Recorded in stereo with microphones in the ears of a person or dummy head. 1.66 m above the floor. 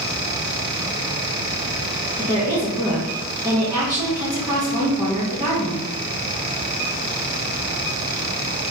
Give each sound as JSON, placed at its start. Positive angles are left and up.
{"t": 2.2, "sound": "a woman speaking", "side_deg": -15, "distance_m": 0.7}